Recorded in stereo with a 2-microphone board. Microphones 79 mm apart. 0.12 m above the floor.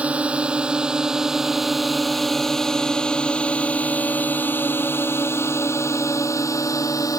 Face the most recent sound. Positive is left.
turn(degrees=45)  # may be behind; listen again after turning